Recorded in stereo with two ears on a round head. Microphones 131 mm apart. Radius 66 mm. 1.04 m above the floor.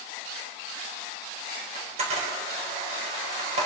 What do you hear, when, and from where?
1.8 s a camera shutter: 45° right (ahead or behind), 5 m